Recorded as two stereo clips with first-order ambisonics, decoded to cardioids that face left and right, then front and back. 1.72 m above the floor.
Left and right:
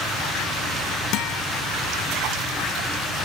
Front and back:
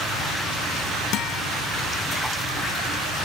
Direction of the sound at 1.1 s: 50° left.